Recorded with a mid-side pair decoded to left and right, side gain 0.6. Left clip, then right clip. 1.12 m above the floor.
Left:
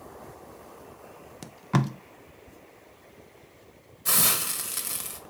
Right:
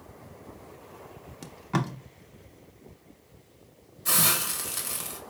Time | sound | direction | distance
1.4 | tape being pulled | 20° left | 0.5 m
4.0 | a hiss | 15° left | 0.9 m